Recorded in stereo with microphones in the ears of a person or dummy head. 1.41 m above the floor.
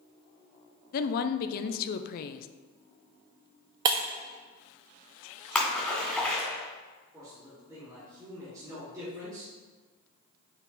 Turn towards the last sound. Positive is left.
turn(degrees=-20)  # may be behind; listen again after turning